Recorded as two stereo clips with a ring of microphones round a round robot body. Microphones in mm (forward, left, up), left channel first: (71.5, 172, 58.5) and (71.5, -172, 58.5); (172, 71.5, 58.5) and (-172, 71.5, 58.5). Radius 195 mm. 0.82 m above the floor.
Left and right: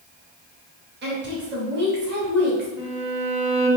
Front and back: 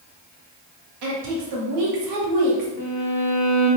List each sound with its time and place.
1.0 s a woman speaking: 150° right, 1.3 m
2.8 s a violin: 15° right, 1.6 m